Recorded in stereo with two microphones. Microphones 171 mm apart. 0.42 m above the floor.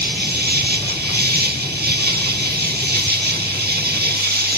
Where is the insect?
65° right (ahead or behind), 0.8 m.